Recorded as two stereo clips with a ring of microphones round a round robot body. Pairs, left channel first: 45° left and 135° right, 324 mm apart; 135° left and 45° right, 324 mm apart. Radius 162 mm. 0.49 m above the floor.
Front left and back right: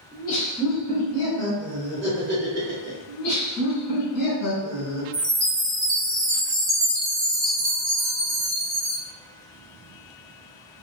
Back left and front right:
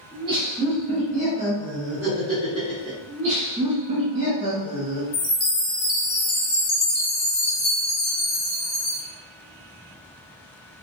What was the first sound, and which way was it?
Laughter, 30° left.